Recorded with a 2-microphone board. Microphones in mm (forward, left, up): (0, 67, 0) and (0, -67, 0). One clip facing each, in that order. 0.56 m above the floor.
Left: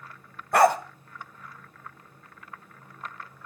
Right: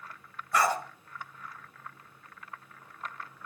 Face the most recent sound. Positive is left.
turn(degrees=60)  # may be behind; listen again after turning